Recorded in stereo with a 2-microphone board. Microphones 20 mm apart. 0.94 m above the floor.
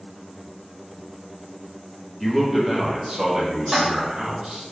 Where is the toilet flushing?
15° right (ahead or behind), 1.5 m.